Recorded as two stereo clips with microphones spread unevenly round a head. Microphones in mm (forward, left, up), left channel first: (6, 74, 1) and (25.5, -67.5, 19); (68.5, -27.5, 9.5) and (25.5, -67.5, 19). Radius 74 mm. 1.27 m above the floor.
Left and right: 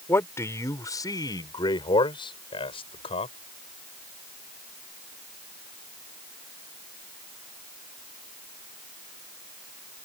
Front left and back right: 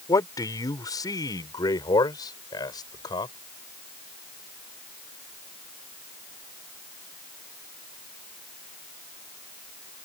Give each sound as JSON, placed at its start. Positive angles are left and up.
{"t": 0.1, "sound": "a man speaking", "azimuth_deg": 25}